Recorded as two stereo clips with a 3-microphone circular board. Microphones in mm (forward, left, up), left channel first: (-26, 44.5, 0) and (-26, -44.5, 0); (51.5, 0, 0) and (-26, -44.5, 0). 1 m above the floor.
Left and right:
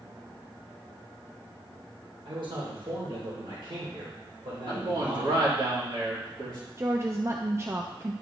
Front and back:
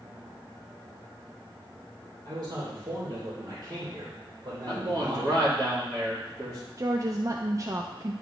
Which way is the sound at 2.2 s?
110° right.